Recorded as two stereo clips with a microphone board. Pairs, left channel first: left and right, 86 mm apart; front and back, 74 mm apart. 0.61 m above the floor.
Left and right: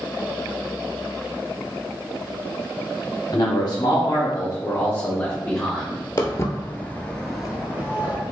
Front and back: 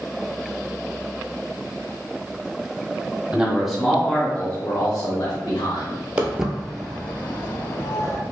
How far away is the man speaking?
About 1.2 m.